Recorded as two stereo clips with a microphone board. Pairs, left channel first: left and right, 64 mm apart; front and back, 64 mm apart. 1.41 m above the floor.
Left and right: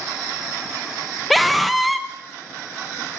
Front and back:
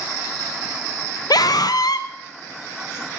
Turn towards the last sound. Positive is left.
turn(degrees=0)